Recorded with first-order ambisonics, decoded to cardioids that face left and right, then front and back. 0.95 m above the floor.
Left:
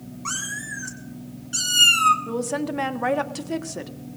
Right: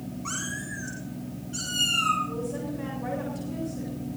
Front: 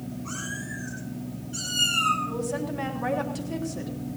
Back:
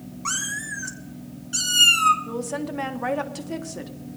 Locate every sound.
0.2 s a cat meowing: 155° left, 2.5 m; by 2.2 s 125° left, 2.5 m
2.3 s a woman speaking: 110° left, 1.4 m